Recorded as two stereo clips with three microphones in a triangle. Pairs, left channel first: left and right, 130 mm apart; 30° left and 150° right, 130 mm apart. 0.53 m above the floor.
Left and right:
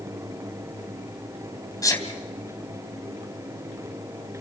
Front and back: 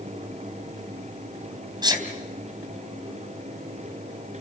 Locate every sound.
1.8 s a sneeze: 155° left, 3.5 m